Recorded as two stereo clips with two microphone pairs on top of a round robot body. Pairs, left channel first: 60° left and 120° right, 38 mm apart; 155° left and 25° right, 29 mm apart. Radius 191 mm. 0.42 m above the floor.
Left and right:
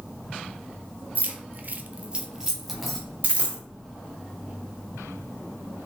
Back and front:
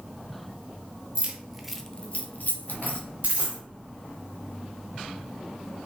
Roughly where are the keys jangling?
Right.